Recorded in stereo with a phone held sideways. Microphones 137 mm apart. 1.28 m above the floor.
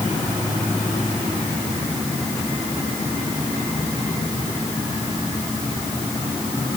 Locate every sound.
Only background noise.